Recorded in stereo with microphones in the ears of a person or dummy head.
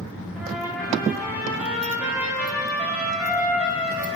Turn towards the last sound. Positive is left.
turn(degrees=-10)  # may be behind; listen again after turning